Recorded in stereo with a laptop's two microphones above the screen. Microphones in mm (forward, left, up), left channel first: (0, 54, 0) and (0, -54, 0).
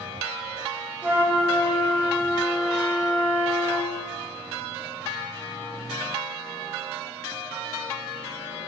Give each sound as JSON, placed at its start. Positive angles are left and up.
{"t": 1.0, "sound": "a flute", "side_deg": -10, "distance_m": 0.5}